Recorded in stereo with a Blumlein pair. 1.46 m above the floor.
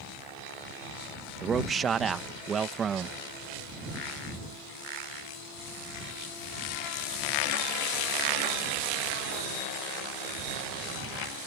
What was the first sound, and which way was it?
A man speaking, 20° right.